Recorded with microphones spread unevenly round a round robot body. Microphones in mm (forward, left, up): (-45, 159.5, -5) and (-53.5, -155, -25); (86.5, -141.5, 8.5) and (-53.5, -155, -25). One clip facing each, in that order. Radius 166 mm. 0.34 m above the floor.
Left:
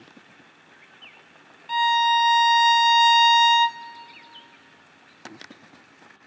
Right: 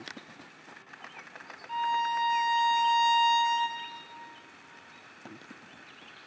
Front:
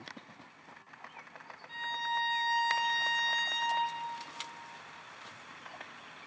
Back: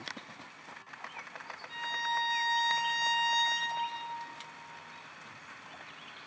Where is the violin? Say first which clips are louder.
Left 8 dB, back 1 dB; 100° left, 0.5 m.